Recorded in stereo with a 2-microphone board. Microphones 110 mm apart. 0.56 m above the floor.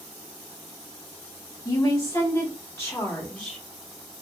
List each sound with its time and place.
1.6 s a woman speaking: 30° left (ahead or behind), 1.6 m; by 3.6 s 10° left (ahead or behind), 1.3 m